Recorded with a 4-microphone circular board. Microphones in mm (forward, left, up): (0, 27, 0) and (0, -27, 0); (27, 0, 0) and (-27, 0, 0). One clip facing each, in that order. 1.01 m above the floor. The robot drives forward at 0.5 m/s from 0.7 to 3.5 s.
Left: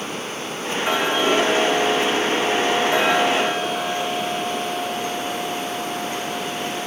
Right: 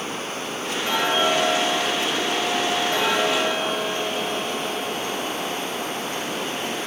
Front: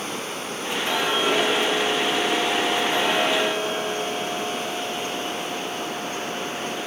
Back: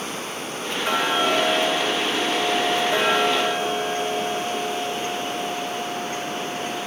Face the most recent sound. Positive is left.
turn(degrees=165)